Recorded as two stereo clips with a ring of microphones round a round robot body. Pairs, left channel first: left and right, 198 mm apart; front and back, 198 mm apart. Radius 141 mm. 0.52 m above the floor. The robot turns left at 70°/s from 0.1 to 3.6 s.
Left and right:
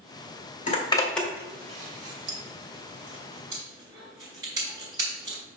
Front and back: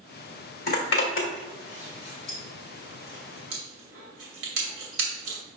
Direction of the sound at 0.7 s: 40° left.